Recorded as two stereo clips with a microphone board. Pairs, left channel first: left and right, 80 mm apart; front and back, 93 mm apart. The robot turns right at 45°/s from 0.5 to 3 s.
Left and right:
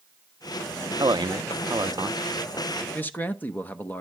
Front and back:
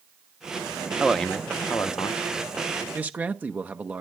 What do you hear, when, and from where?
1.0 s a man speaking: 95° right, 0.8 m; by 2.2 s 40° right, 0.8 m
2.9 s a man speaking: 125° left, 0.8 m; by 4.0 s 130° left, 0.8 m